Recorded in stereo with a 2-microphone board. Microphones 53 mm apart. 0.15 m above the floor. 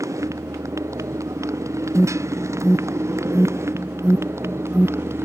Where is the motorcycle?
80° right; by 5.3 s 55° right (ahead or behind).